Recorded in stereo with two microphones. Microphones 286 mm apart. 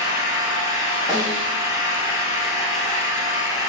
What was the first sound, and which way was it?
An engine running, 10° right (ahead or behind).